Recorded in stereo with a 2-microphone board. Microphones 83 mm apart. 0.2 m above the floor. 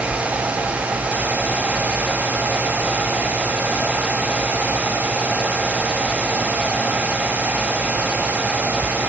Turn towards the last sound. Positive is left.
No sound to turn to.